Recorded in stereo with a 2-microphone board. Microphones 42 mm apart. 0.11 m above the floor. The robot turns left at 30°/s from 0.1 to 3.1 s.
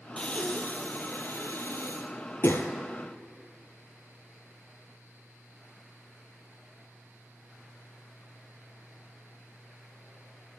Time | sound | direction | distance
0.2 | breathing | 25° left (ahead or behind) | 1.0 m